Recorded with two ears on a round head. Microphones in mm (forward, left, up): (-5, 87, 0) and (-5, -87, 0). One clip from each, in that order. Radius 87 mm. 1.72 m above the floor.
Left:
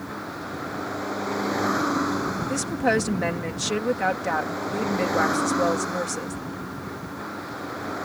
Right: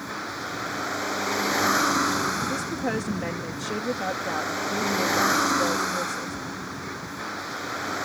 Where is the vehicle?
55° right (ahead or behind).